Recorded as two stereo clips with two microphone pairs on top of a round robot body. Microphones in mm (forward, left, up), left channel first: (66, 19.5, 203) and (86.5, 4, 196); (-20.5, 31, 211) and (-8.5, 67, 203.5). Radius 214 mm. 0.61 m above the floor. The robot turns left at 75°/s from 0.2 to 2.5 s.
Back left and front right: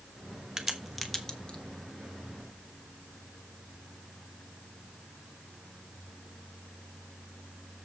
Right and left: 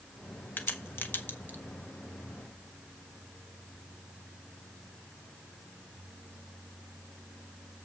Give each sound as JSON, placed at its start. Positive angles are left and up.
{"t": 0.6, "sound": "a crack", "azimuth_deg": -80, "distance_m": 1.7}